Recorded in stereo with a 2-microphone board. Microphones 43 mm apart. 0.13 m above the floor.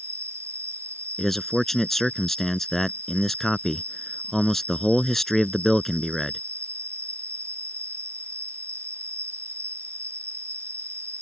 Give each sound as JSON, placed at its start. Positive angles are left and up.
{"t": 0.0, "sound": "an insect", "side_deg": -75}
{"t": 1.2, "sound": "a man speaking", "side_deg": 5}